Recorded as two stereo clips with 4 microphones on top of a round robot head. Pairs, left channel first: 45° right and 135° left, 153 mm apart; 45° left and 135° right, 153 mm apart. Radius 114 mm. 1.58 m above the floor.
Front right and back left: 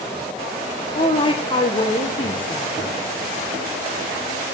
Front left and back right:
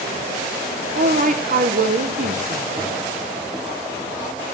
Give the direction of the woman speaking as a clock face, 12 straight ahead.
3 o'clock.